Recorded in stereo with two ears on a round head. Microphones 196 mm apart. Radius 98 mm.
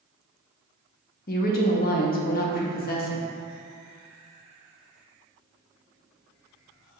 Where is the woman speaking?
45° left (ahead or behind), 0.6 m.